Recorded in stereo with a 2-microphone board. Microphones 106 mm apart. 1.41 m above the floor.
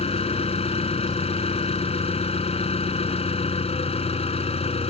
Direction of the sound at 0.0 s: 70° left (ahead or behind).